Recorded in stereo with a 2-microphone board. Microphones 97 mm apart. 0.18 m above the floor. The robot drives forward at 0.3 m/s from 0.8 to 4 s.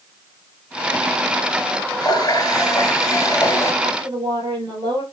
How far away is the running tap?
About 1.3 m.